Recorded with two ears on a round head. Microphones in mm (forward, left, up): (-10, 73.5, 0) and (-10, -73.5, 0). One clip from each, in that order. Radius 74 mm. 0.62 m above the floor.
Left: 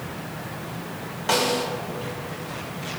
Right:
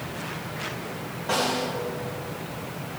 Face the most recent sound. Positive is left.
turn(degrees=65)  # may be behind; listen again after turning